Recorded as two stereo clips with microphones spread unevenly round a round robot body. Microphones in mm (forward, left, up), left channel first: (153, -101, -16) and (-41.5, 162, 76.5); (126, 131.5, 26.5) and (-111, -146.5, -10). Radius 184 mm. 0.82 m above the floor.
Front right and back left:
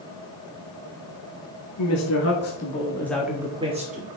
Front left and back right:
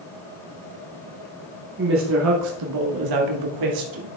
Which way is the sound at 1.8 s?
75° right.